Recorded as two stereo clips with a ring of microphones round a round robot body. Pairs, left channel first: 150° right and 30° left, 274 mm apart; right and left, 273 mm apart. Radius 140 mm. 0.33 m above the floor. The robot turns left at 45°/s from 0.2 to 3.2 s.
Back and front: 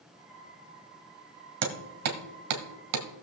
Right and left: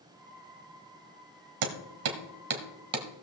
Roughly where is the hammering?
Left.